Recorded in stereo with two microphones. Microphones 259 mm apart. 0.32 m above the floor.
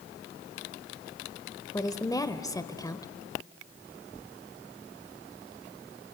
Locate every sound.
1.7 s a woman speaking: 15° left (ahead or behind), 0.9 m